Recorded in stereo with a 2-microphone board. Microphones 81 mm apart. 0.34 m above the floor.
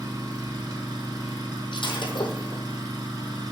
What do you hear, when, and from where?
0.0 s an engine running: 50° right (ahead or behind), 3 m
1.7 s breaking glass: 80° left, 1.8 m